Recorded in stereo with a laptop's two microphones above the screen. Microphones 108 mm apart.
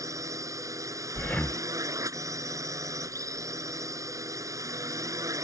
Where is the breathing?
10° left (ahead or behind).